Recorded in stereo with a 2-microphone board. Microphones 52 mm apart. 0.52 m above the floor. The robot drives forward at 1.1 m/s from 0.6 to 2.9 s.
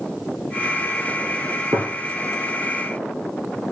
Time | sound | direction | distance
1.7 | a gunshot | 75° right (ahead or behind) | 2.5 m